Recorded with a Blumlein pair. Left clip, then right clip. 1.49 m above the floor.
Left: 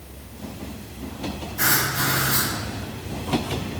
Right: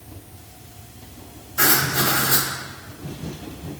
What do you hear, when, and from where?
1.6 s writing: 35° right, 1.7 m